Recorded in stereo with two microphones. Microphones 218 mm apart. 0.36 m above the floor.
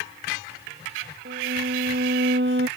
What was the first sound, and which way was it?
A violin, 55° right (ahead or behind).